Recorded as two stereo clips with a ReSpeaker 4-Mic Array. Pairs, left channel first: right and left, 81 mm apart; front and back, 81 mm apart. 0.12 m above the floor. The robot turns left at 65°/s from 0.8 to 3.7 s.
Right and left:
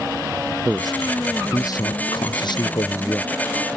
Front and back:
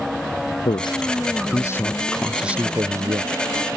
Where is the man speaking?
5° left; by 3.8 s 175° left.